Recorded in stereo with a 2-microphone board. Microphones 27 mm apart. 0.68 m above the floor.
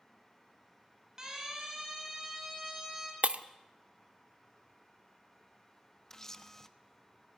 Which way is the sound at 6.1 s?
20° left (ahead or behind).